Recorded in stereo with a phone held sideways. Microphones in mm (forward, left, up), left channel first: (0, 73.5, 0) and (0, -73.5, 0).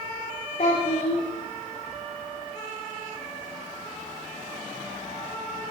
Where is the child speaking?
60° left (ahead or behind), 1.6 m.